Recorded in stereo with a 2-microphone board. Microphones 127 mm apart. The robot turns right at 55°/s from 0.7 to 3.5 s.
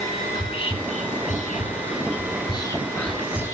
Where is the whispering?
45° left (ahead or behind), 3.5 m; by 3.5 s 20° right (ahead or behind), 3.5 m.